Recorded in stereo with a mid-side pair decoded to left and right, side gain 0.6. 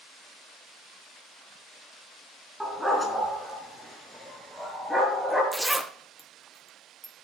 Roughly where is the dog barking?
Ahead.